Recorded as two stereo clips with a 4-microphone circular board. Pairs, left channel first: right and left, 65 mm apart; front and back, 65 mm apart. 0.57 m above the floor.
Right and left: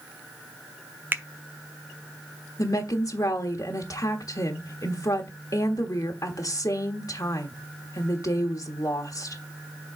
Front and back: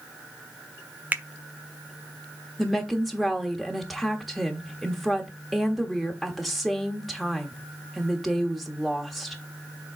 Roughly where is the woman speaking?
Right.